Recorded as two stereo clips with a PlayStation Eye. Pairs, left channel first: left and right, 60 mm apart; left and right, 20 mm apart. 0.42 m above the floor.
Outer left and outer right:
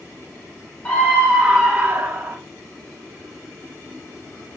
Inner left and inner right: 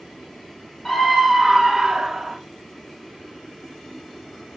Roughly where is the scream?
Centre.